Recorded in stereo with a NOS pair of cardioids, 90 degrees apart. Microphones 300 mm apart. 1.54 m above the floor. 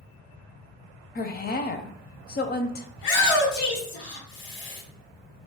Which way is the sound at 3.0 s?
60° left.